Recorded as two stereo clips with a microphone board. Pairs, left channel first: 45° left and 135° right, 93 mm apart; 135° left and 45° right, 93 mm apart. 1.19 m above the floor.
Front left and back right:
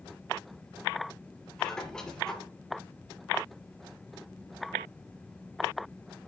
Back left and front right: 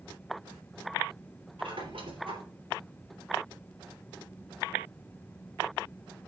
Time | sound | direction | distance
1.6 | a squeak | 35° right | 3 m